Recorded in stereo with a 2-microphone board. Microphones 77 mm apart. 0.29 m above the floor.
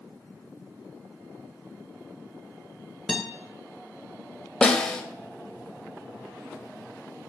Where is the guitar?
Centre (ahead or behind), 0.9 m.